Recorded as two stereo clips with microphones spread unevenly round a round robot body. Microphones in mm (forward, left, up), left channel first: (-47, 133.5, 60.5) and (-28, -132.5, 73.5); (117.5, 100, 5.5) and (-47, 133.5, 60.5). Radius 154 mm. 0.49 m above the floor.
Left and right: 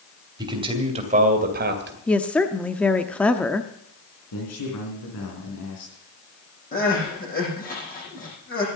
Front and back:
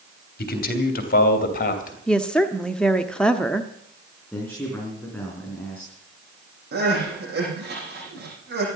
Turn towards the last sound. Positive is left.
turn(degrees=150)